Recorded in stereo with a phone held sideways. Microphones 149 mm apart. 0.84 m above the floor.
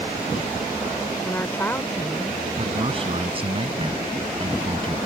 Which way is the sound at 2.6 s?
35° right (ahead or behind).